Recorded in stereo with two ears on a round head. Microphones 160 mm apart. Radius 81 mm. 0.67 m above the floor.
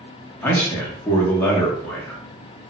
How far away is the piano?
No piano in this recording.